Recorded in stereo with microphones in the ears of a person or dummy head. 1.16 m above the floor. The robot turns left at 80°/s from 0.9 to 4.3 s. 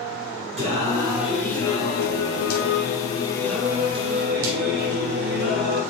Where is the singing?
150° right, 4 m; by 5.8 s 60° right, 4 m.